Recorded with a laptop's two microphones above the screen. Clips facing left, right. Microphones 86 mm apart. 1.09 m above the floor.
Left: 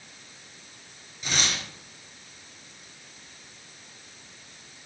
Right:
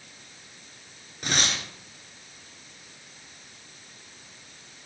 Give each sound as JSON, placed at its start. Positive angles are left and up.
{"t": 1.2, "sound": "tearing paper", "side_deg": -55, "distance_m": 3.5}